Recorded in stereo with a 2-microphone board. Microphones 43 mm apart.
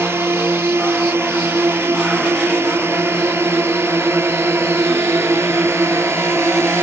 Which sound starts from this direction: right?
A drone, at 0.0 s.